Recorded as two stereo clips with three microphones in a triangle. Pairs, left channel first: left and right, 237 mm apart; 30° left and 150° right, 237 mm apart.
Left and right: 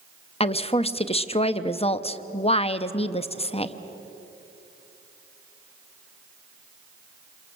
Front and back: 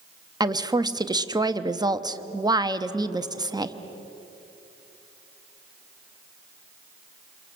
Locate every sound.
0.4 s a woman speaking: 145° left, 0.8 m